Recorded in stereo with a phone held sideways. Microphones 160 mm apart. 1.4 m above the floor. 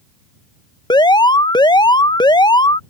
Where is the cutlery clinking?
No cutlery clinking in this recording.